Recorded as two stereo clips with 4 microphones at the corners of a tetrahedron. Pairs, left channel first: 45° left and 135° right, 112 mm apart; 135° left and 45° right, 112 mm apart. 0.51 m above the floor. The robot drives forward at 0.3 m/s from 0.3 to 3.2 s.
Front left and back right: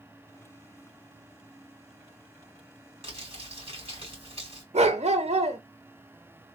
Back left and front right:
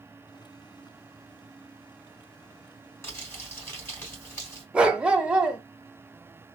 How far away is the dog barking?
About 0.6 m.